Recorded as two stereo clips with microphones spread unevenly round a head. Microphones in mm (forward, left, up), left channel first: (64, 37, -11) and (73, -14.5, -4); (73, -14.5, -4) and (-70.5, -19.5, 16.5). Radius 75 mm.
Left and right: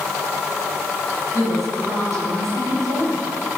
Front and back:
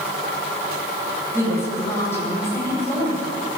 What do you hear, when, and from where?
1.3 s a woman speaking: 70° right, 9.5 m